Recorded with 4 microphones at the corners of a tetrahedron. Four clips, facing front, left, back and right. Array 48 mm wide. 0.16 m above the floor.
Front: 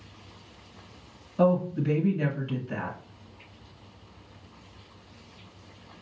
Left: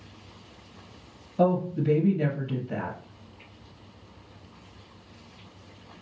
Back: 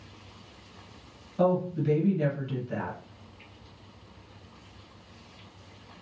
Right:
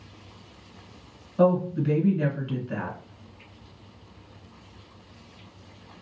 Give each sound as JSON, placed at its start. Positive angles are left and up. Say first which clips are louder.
{"t": 1.4, "sound": "a woman speaking", "louder": "right 2 dB, front 2 dB", "azimuth_deg": -65, "distance_m": 1.8}